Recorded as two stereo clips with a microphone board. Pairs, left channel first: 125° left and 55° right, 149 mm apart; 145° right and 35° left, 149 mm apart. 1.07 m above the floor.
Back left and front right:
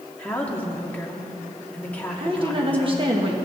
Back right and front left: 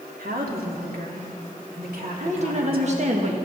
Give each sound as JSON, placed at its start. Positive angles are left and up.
{"t": 0.2, "sound": "a woman speaking", "azimuth_deg": 45, "distance_m": 2.5}
{"t": 2.2, "sound": "a woman speaking", "azimuth_deg": -5, "distance_m": 1.4}